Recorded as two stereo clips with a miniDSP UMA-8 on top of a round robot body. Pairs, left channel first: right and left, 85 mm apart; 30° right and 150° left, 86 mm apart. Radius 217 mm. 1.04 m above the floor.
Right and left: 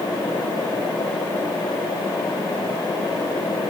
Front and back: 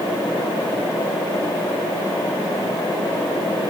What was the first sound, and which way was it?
Only background noise.